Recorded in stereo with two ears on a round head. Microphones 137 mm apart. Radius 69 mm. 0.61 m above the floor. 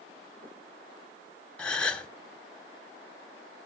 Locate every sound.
1.6 s a gasp: 5° left (ahead or behind), 1.6 m